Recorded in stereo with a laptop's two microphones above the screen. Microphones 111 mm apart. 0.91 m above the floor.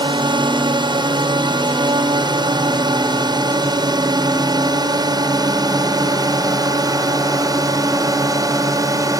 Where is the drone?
45° right (ahead or behind); by 9.2 s 30° right (ahead or behind).